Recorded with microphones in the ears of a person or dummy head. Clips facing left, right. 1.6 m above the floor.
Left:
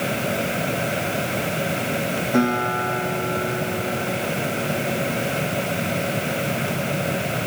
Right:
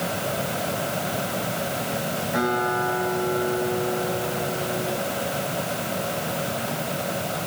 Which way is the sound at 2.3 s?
50° left (ahead or behind).